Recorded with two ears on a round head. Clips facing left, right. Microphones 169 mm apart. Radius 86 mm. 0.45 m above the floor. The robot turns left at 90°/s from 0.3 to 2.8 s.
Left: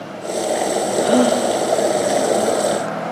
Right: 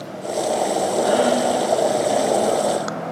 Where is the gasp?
145° left, 7.5 m; by 1.4 s 110° left, 7.5 m.